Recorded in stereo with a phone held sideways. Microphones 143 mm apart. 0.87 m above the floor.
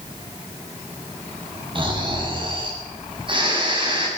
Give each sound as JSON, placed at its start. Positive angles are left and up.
{"t": 1.8, "sound": "snoring", "side_deg": -35, "distance_m": 6.5}